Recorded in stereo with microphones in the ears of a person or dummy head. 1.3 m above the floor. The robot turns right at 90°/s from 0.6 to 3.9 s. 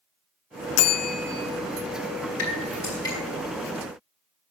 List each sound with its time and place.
0.8 s a bell: 100° left, 0.6 m; by 1.5 s 165° left, 0.6 m
2.4 s dripping: 75° left (ahead or behind), 3 m; by 3.1 s 10° left (ahead or behind), 3 m